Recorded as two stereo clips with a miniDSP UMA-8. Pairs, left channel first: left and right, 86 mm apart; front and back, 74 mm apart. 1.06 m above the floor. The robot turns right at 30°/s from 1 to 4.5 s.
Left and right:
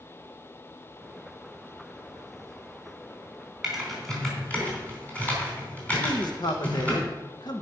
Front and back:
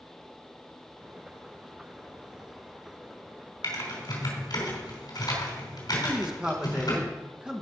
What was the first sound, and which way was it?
Typing on a keyboard, 10° right.